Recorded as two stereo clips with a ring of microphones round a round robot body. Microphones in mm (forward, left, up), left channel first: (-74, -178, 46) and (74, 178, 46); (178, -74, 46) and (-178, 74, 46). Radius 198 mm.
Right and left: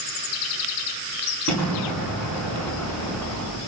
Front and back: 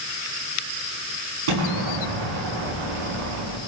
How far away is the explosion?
About 7 m.